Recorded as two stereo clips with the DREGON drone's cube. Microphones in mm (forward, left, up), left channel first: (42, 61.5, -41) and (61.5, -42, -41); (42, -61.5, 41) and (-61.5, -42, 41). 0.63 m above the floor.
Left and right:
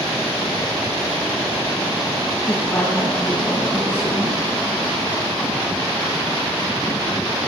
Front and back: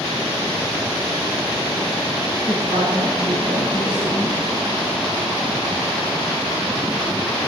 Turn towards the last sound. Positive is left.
turn(degrees=180)